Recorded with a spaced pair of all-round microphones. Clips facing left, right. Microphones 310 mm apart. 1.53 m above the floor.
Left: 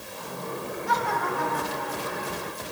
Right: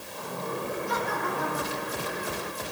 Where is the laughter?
75° left (ahead or behind), 8 m.